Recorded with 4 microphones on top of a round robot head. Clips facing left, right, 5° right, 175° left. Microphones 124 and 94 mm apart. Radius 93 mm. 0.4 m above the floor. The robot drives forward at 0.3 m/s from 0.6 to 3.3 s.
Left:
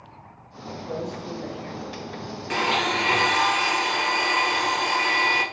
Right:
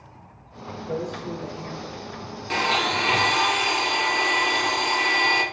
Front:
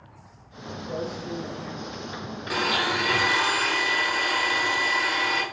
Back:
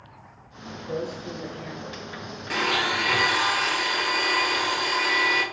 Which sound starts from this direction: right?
A blender, at 2.5 s.